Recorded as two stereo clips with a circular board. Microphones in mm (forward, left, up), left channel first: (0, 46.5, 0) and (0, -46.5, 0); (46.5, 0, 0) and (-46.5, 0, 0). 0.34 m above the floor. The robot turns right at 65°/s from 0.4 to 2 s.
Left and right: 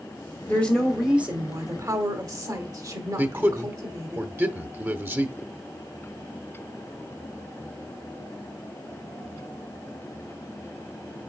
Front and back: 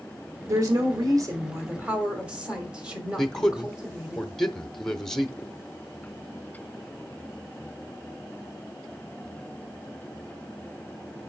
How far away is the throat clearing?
No throat clearing in this recording.